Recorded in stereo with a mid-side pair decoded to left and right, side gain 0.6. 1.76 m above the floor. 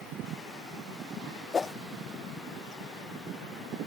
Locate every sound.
1.5 s a whoosh: 30° left